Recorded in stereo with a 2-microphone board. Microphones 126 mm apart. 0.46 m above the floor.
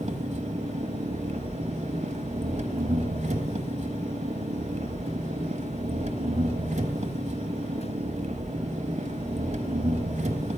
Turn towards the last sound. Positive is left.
turn(degrees=-65)  # may be behind; listen again after turning